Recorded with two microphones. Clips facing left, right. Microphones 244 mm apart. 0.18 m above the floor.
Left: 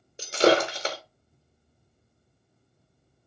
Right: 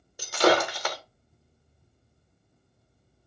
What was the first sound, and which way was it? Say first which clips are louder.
Breaking glass: left 2 dB; 25° left (ahead or behind).